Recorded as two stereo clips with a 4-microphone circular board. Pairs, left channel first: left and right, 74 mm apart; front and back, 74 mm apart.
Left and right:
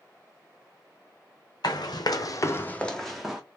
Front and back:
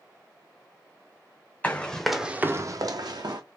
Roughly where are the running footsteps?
Left.